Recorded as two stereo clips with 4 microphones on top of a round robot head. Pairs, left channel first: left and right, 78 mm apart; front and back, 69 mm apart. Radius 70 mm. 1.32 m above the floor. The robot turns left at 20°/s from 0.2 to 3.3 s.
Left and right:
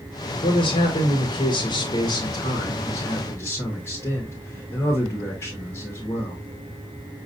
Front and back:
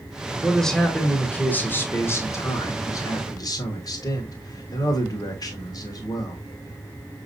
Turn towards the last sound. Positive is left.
turn(degrees=30)